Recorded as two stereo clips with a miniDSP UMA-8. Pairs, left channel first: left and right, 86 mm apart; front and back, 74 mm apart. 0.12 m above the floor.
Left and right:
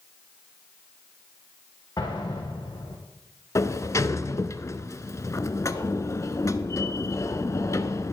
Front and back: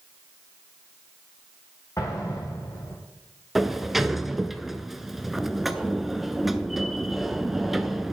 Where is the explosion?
50° left, 3.5 m.